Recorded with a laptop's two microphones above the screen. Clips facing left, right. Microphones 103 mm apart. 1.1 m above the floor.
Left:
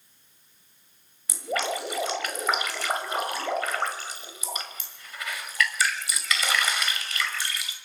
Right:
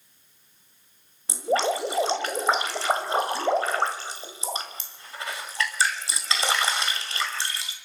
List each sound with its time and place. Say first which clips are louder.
1.3 s dripping: right 5 dB; 30° right (ahead or behind), 2.0 m